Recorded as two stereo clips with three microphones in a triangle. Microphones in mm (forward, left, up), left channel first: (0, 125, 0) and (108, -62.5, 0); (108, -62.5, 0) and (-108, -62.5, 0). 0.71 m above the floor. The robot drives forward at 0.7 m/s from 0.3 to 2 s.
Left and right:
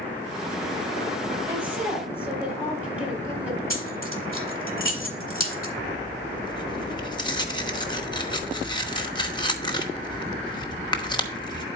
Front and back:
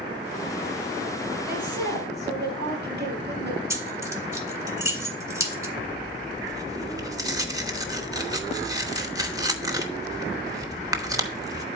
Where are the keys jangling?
105° left, 1.8 m.